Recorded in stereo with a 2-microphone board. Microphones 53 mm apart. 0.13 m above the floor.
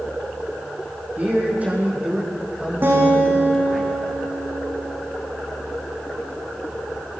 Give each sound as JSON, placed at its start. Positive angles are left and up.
{"t": 1.2, "sound": "a man speaking", "side_deg": -30, "distance_m": 5.0}
{"t": 2.8, "sound": "a guitar", "side_deg": -40, "distance_m": 6.5}